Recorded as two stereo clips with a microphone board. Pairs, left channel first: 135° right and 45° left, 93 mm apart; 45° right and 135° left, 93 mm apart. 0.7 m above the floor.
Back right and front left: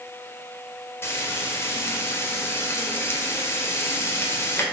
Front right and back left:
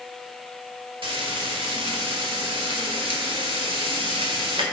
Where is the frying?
160° left, 1.6 m.